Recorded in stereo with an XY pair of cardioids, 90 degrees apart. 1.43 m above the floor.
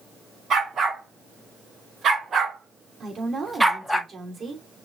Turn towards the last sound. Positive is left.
turn(degrees=-40)